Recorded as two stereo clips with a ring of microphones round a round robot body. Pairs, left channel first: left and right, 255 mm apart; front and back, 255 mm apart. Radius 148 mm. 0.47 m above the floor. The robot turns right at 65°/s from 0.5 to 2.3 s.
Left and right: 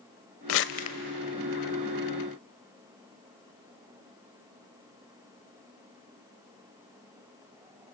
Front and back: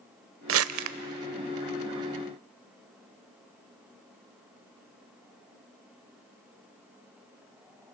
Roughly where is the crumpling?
Behind left.